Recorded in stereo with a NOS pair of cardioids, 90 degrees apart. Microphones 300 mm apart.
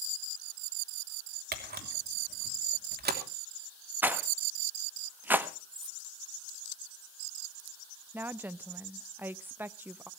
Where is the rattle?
5° right, 1.7 m.